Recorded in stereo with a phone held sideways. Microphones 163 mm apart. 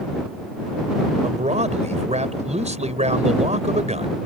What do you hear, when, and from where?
1.2 s a man speaking: 45° right (ahead or behind)